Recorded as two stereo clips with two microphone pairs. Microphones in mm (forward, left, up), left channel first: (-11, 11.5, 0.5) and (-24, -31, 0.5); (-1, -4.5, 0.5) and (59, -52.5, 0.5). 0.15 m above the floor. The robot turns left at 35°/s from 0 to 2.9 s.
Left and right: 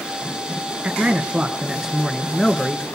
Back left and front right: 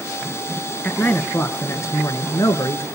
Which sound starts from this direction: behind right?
A man speaking, at 0.8 s.